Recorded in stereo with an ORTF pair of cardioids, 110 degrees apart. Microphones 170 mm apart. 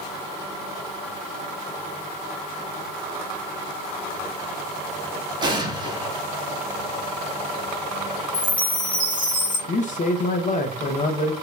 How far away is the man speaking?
About 0.9 m.